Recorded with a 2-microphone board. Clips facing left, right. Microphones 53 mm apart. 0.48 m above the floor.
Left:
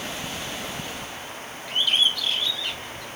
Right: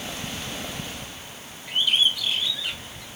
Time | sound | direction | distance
1.7 | a bird | 10° right (ahead or behind) | 2.0 m